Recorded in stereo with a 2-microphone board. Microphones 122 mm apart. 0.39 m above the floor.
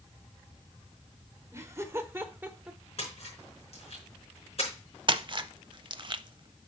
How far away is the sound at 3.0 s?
About 4.5 m.